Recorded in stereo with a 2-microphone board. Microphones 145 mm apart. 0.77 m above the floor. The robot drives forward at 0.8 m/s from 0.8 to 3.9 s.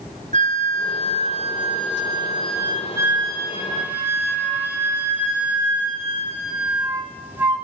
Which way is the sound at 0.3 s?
50° right (ahead or behind).